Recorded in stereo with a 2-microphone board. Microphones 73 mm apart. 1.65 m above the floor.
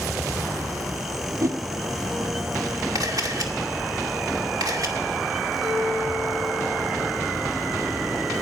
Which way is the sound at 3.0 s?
55° right (ahead or behind).